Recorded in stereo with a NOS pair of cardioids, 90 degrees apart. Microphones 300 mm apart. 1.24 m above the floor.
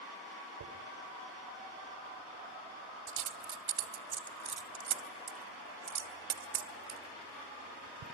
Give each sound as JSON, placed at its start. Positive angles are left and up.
{"t": 0.6, "sound": "a dropped coin", "azimuth_deg": -65, "distance_m": 3.0}